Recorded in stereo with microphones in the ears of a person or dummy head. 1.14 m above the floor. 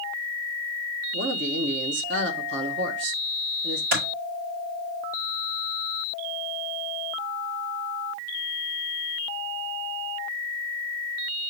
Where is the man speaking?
60° right (ahead or behind), 1.1 m.